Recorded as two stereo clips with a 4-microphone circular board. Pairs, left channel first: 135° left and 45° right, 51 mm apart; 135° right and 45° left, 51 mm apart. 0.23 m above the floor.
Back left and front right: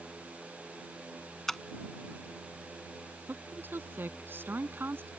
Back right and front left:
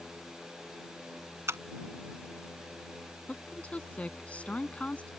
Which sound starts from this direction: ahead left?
A camera shutter, at 1.5 s.